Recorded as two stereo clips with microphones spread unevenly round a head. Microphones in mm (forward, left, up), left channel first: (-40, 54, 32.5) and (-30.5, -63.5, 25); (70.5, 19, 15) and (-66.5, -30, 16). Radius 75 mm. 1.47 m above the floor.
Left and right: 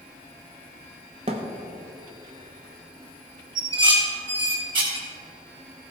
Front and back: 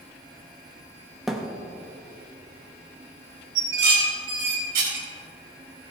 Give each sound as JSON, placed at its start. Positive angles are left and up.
{"t": 1.3, "sound": "a thud", "azimuth_deg": -70, "distance_m": 0.9}
{"t": 3.5, "sound": "dishes clattering", "azimuth_deg": -135, "distance_m": 3.5}